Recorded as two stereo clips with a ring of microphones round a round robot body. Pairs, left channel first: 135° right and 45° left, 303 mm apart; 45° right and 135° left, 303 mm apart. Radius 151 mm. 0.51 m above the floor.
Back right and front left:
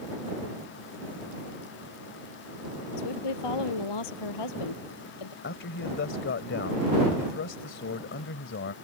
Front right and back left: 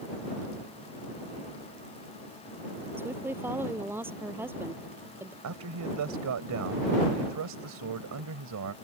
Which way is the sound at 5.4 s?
170° left.